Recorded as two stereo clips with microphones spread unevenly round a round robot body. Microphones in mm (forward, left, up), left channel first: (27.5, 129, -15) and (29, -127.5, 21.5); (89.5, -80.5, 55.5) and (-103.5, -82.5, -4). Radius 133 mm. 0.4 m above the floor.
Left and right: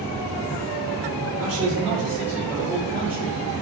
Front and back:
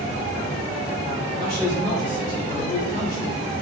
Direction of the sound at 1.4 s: 40° right.